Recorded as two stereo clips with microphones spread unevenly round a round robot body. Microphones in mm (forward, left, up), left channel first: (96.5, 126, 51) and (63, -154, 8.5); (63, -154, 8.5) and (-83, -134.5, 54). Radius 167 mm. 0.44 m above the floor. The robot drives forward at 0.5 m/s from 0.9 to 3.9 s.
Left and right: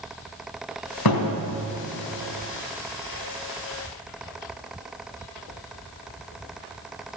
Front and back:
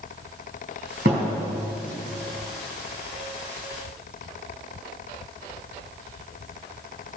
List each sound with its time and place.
1.1 s a thud: 110° left, 1.8 m; by 1.4 s 115° left, 1.8 m